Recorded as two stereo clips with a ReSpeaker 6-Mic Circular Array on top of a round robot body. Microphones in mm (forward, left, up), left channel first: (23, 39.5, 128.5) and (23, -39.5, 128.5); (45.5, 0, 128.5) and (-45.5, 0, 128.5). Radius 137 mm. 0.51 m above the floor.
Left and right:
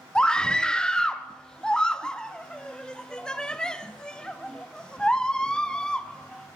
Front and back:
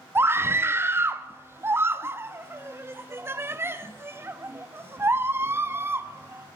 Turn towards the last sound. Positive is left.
turn(degrees=155)